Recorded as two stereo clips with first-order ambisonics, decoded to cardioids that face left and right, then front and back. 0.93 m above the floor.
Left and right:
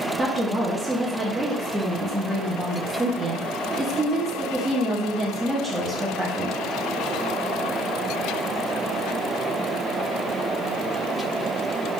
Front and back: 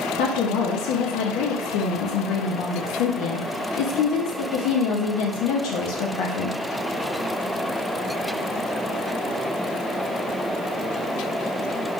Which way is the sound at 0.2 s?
10° right.